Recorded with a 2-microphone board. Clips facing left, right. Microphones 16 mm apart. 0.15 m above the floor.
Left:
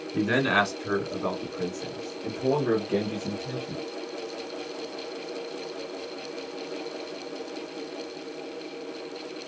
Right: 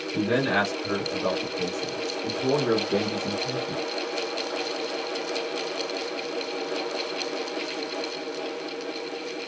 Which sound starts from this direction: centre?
A man speaking, at 0.1 s.